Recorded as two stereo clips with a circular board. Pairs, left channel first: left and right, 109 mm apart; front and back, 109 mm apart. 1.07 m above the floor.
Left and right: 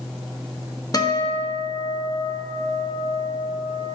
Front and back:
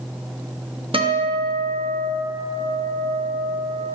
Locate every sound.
0.9 s a guitar: 145° left, 0.8 m